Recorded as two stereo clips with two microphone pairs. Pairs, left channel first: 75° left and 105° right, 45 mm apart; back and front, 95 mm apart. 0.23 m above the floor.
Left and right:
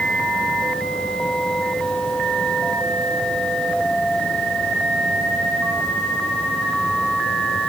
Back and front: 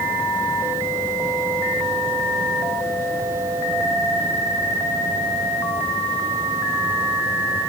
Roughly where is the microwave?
I don't hear a microwave.